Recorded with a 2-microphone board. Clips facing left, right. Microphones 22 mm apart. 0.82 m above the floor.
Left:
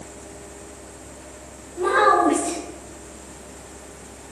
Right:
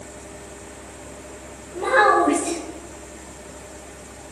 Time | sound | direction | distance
1.7 | a child speaking | 50° right (ahead or behind) | 1.6 m